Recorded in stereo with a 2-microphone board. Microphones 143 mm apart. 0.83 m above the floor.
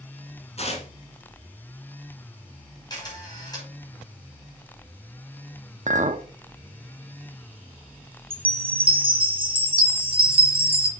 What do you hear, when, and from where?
0.6 s tearing paper: 45° left (ahead or behind), 1.7 m
2.9 s a camera shutter: 30° left (ahead or behind), 4 m
5.9 s a clink: 60° right (ahead or behind), 0.7 m
8.3 s a chime: 40° right (ahead or behind), 1.3 m